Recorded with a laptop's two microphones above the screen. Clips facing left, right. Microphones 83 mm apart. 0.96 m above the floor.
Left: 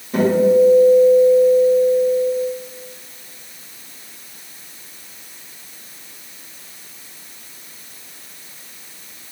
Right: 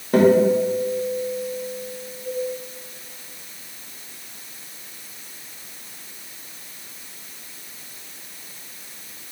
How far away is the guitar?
About 1.1 m.